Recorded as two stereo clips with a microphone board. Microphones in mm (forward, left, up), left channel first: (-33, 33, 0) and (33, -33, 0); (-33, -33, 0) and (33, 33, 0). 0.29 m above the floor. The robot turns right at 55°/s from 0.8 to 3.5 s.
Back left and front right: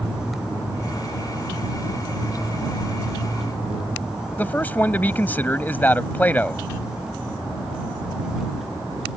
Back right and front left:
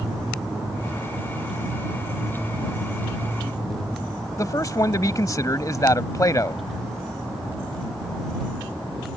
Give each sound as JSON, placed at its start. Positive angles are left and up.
{"t": 4.4, "sound": "a man speaking", "azimuth_deg": -165}